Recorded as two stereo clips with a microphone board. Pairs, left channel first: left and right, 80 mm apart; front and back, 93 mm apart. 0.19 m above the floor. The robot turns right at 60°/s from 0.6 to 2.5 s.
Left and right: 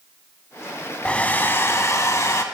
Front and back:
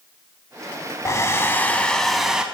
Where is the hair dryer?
25° left, 0.6 m; by 2.4 s 105° left, 0.6 m.